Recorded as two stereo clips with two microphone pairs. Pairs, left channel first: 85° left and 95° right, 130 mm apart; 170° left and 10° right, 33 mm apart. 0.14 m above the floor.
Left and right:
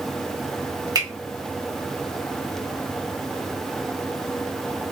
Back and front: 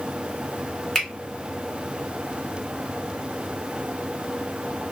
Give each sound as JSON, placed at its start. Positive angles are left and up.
{"t": 0.9, "sound": "a finger snap", "azimuth_deg": -125, "distance_m": 1.4}